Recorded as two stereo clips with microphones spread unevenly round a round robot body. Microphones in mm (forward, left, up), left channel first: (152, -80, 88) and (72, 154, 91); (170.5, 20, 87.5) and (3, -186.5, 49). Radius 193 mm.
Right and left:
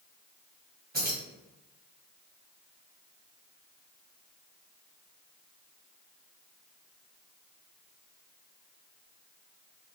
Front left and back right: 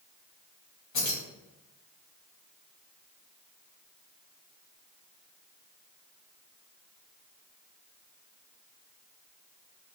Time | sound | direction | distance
0.9 | keys jangling | 60° left | 1.9 m